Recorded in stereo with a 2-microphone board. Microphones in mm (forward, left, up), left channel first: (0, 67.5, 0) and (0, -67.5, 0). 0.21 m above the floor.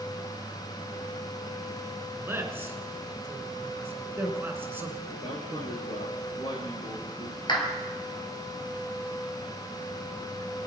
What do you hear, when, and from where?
2.2 s a man speaking: 15° right (ahead or behind), 2.5 m
5.1 s a man speaking: 45° left (ahead or behind), 4 m
7.5 s a clap: 35° left (ahead or behind), 3.5 m